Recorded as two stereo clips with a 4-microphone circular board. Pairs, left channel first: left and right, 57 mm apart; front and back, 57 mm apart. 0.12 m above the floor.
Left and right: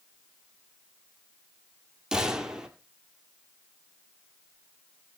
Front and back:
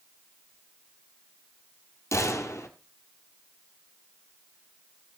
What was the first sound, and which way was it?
A gunshot, 15° right.